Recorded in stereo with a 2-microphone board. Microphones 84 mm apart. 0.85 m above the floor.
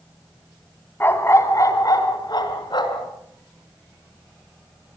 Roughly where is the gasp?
I don't hear a gasp.